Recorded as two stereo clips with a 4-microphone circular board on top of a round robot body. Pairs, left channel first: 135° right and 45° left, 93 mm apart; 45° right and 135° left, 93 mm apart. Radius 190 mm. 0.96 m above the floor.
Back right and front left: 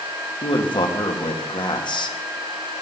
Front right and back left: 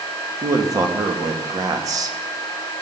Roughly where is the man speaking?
Behind.